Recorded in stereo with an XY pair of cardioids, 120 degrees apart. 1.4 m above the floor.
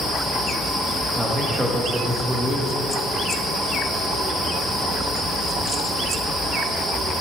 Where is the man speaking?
10° right, 1.8 m.